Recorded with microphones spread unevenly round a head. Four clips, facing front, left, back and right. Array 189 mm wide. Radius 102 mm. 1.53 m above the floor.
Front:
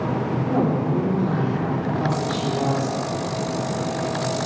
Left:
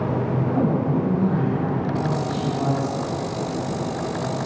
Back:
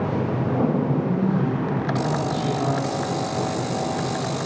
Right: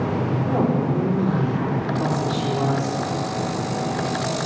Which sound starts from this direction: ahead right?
A woman speaking, at 0.5 s.